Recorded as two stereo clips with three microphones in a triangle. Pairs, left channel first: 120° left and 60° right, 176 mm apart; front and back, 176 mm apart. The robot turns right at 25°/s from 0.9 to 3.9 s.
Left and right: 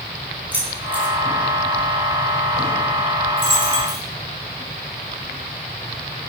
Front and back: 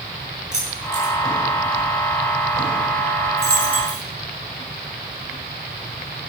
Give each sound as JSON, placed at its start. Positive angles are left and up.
{"t": 0.5, "sound": "keys jangling", "azimuth_deg": 20, "distance_m": 4.5}
{"t": 3.4, "sound": "a dropped coin", "azimuth_deg": -25, "distance_m": 3.5}